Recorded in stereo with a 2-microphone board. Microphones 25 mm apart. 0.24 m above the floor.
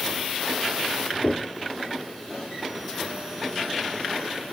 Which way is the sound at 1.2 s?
50° left (ahead or behind).